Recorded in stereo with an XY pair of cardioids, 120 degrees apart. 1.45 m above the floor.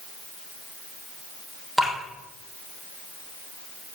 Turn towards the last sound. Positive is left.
turn(degrees=-5)